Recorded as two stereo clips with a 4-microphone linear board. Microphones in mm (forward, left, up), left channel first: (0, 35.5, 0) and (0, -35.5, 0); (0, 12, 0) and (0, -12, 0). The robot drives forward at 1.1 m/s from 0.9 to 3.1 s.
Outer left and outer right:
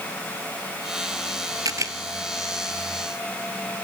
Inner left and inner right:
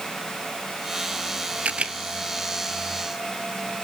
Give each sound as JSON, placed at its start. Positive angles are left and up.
{"t": 1.6, "sound": "a camera shutter", "side_deg": -60, "distance_m": 0.9}